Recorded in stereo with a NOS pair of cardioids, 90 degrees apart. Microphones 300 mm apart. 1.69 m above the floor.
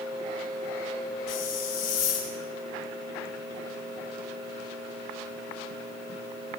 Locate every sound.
1.3 s a hiss: 60° left, 8 m